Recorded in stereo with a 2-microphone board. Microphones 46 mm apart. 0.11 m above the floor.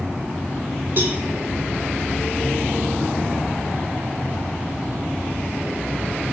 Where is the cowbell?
40° right (ahead or behind), 1.2 m.